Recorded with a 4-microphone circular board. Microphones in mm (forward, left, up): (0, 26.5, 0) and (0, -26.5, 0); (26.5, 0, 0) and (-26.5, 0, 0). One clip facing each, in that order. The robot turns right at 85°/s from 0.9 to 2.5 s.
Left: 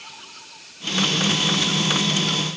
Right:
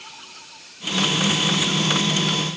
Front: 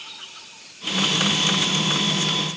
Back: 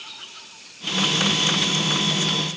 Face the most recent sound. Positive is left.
No sound to turn to.